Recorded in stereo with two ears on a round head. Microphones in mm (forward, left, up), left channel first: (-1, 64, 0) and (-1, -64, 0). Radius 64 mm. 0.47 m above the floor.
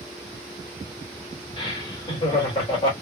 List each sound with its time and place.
1.6 s laughter: 35° left (ahead or behind), 1.6 m